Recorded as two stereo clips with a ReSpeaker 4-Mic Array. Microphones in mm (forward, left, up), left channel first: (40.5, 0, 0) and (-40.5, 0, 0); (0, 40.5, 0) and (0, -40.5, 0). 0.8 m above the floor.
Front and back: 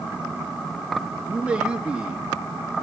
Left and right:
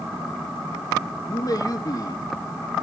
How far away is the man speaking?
About 1.5 m.